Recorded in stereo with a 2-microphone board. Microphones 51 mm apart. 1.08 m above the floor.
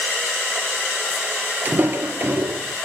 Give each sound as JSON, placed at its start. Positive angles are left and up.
{"t": 1.6, "sound": "footsteps", "side_deg": -30, "distance_m": 1.3}